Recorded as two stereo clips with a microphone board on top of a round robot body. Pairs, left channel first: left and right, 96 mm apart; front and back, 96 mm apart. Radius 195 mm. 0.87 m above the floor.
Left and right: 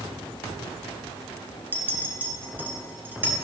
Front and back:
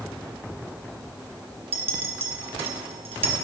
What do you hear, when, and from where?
1.7 s a clink: 160° right, 1.9 m